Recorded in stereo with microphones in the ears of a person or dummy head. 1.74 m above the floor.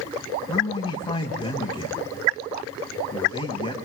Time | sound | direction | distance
0.5 | a man speaking | 25° left (ahead or behind) | 1.9 m